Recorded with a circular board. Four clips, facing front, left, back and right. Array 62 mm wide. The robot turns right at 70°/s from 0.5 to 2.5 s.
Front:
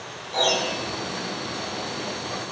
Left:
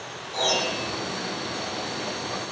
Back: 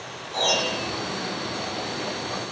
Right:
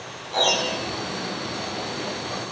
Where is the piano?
70° right, 1.1 m; by 0.8 s 50° right, 1.1 m.